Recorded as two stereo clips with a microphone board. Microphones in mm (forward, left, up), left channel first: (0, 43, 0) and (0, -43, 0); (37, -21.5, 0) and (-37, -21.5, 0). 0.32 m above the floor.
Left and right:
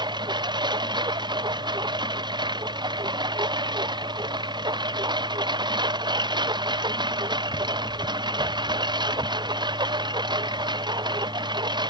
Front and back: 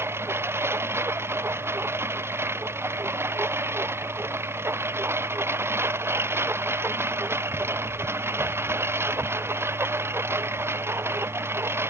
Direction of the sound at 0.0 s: 120° right.